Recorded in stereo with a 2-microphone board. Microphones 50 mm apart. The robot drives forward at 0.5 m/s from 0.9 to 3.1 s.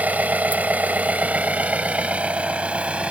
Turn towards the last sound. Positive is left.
turn(degrees=-25)  # may be behind; listen again after turning